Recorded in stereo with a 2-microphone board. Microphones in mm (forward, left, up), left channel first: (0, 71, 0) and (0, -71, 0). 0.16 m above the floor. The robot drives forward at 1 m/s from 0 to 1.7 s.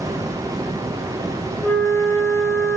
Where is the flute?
15° left (ahead or behind), 1.1 m; by 2.8 s 10° left (ahead or behind), 1.1 m.